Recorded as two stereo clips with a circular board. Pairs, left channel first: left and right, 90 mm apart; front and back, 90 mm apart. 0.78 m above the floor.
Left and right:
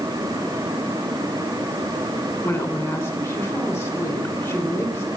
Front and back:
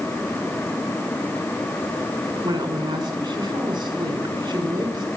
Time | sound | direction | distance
2.4 | a woman speaking | 145° left | 3.5 m